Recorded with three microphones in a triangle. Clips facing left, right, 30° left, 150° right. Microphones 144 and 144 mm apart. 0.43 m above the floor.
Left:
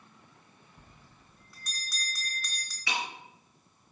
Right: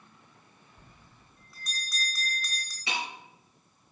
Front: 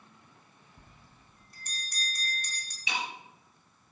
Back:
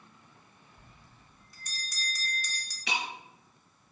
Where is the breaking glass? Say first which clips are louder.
Even, back 1 dB; 160° right, 3.5 m.